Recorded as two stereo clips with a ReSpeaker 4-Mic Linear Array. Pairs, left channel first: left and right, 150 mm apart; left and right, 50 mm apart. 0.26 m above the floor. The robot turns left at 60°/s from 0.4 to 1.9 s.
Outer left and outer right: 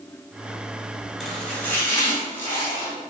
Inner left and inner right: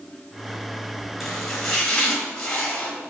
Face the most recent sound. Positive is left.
turn(degrees=15)  # may be behind; listen again after turning